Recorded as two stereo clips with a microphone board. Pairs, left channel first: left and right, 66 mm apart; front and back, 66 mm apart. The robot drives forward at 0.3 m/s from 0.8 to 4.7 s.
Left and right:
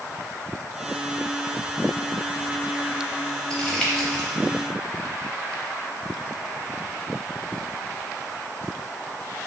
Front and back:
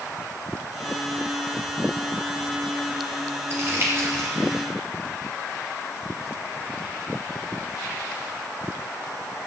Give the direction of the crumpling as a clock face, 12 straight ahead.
7 o'clock.